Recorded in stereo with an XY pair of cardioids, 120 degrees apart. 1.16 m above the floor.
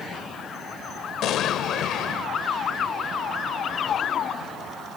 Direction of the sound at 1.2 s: 70° left.